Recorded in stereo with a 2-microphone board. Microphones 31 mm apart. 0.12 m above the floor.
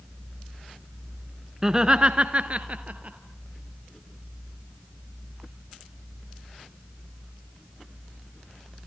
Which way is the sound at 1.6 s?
15° right (ahead or behind).